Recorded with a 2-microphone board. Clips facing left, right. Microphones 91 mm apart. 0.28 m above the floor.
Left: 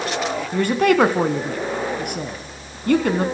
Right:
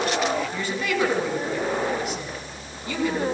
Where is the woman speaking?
55° left (ahead or behind), 2.5 m.